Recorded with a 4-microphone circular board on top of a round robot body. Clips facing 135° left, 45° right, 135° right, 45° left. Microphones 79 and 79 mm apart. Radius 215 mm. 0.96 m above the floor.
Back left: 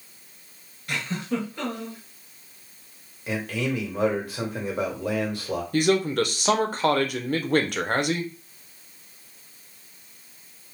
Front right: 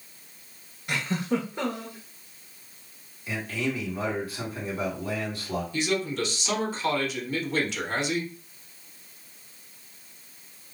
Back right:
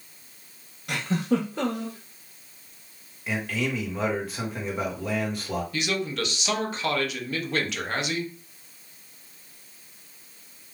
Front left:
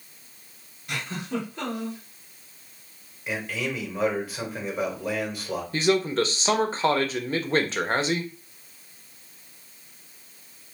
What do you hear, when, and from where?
0.9 s a giggle: 115° right, 0.6 m
3.3 s a man speaking: 130° left, 1.6 m
5.7 s a man speaking: 100° left, 0.7 m